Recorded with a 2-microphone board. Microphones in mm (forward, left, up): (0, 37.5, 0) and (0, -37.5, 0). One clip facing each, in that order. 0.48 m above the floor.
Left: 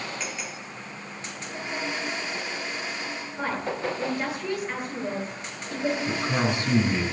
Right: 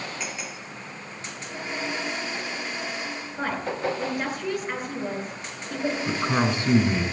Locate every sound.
3.4 s a woman speaking: 20° right (ahead or behind), 9 m
6.1 s a man speaking: 30° right (ahead or behind), 4.5 m